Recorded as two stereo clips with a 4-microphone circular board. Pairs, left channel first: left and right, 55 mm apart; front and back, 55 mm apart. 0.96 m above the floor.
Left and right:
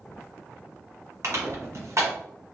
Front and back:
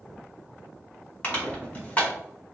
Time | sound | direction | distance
1.2 | crushing | 60° right | 1.6 m